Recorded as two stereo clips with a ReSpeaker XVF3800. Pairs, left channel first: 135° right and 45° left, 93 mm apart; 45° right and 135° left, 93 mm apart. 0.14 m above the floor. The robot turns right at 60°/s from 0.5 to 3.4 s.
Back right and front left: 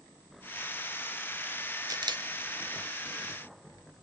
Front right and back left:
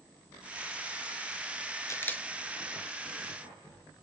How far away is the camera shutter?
About 0.5 m.